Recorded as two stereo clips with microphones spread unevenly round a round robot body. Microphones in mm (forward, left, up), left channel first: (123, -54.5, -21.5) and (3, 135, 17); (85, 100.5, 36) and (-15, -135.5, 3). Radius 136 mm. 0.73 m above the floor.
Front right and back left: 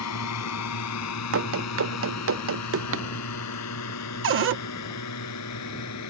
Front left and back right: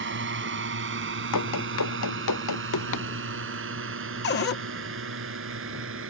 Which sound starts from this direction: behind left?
A cupboard door, at 4.2 s.